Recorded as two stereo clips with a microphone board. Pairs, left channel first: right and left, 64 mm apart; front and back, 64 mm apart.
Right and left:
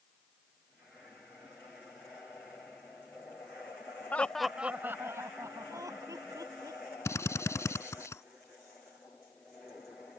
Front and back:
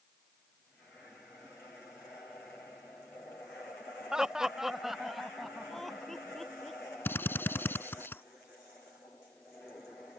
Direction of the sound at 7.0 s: 55° right.